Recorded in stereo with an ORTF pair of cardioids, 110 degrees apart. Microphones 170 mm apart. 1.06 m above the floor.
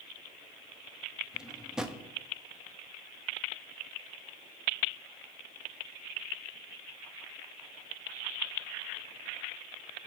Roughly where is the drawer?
Ahead.